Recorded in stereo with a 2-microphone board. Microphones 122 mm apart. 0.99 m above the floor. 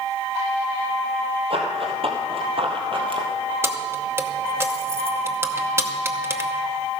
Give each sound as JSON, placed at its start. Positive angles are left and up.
{"t": 1.5, "sound": "running footsteps", "side_deg": -55, "distance_m": 1.8}
{"t": 3.6, "sound": "keys jangling", "side_deg": -20, "distance_m": 0.8}